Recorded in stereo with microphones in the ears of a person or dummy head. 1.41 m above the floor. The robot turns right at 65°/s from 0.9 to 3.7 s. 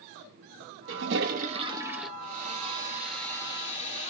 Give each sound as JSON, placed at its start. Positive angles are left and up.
{"t": 0.9, "sound": "a toilet flushing", "azimuth_deg": -75, "distance_m": 0.6}
{"t": 2.2, "sound": "a hair dryer", "azimuth_deg": -55, "distance_m": 2.0}